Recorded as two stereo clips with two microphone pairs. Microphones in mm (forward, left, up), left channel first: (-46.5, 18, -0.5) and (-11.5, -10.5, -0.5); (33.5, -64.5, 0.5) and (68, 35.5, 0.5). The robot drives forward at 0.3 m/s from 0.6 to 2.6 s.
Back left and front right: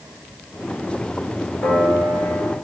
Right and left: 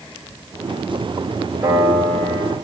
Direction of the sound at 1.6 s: 140° left.